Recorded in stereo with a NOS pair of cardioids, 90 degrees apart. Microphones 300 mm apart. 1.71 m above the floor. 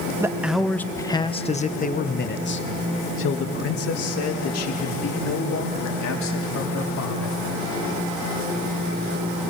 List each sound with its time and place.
0.2 s a man speaking: 10° right, 1.3 m; by 7.4 s 65° left, 4 m